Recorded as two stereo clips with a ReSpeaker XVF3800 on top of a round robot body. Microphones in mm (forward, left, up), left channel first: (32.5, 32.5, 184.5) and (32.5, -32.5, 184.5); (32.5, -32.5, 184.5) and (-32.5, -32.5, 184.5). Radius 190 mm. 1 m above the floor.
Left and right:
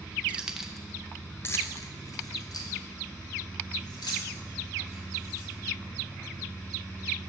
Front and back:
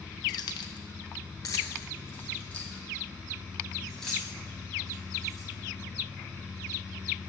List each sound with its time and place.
0.3 s keys jangling: 20° right, 0.8 m; by 5.5 s 85° left, 3 m